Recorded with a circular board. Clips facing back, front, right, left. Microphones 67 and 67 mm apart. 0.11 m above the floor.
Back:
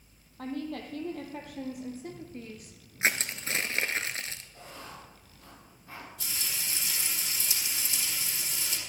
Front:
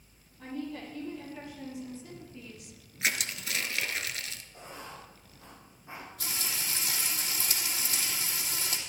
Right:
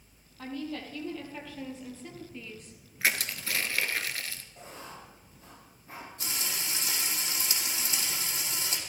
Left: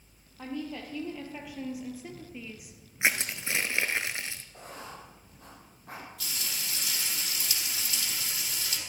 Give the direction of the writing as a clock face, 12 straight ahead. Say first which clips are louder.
Front 1 dB, left 2 dB; 10 o'clock.